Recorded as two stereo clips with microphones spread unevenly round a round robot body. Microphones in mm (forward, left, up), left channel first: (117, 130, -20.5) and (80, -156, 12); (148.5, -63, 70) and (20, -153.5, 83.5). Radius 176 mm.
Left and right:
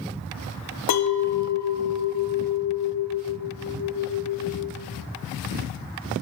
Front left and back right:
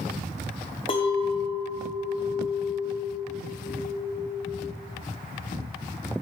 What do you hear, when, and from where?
0.9 s a clink: 85° left, 0.6 m